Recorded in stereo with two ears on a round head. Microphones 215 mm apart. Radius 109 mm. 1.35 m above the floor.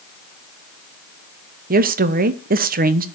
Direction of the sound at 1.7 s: 40° right (ahead or behind).